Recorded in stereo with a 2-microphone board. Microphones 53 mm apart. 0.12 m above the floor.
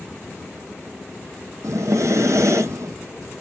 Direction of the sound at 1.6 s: 70° right (ahead or behind).